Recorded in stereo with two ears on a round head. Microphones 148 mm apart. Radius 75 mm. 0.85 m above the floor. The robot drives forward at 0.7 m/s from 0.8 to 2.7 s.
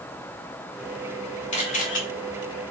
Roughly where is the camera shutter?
Left.